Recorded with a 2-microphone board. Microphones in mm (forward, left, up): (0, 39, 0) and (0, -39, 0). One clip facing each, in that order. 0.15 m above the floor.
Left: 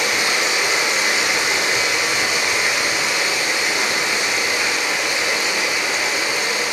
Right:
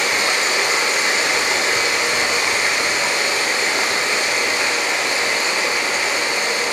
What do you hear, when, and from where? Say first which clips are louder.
0.0 s running water: right 1 dB; 35° right (ahead or behind), 0.7 m